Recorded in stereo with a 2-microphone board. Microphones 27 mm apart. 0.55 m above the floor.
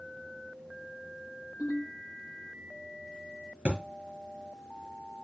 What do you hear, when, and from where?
1.6 s a ringtone: 75° right (ahead or behind), 7 m
3.6 s a thud: 85° right, 4.5 m